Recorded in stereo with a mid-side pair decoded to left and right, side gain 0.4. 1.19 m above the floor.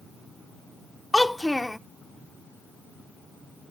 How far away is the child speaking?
About 0.5 m.